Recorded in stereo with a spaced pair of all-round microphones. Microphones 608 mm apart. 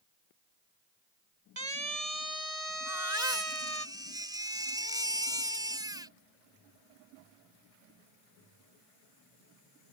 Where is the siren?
75° right (ahead or behind); by 3.9 s 55° right (ahead or behind).